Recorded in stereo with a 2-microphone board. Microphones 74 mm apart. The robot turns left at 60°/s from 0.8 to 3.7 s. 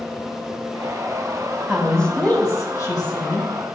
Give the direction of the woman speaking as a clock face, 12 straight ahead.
6 o'clock.